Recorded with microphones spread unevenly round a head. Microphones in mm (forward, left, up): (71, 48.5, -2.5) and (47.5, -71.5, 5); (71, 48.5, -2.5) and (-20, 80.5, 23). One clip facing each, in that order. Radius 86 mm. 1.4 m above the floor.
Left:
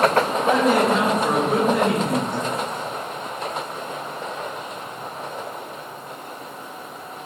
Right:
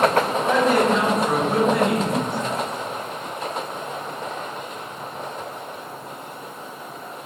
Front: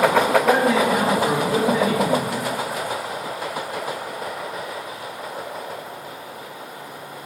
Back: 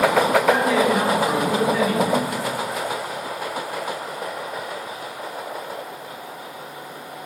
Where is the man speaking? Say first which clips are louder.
Even, even; straight ahead, 0.9 m; by 2.4 s 25° right, 2.0 m.